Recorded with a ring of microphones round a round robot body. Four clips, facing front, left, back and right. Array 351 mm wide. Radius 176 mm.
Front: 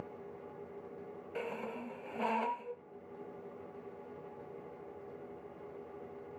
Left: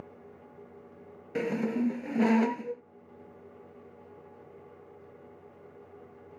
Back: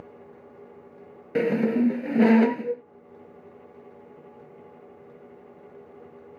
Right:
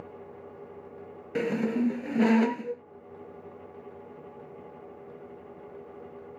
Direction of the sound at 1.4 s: 175° right.